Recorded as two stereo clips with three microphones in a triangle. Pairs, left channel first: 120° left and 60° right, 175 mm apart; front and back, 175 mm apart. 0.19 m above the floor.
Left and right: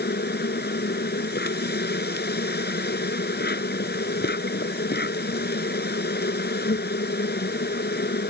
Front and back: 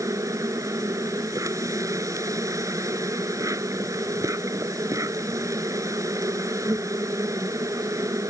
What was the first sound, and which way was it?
An insect, 110° left.